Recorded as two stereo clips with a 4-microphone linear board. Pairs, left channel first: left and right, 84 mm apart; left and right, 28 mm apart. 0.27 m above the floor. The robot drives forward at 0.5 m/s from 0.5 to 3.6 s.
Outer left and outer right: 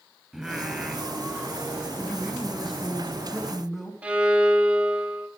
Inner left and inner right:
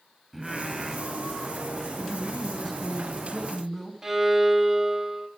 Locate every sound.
0.3 s singing: 5° right (ahead or behind), 0.8 m
2.0 s a man speaking: centre (ahead or behind), 1.7 m
4.0 s a violin: 15° right (ahead or behind), 0.7 m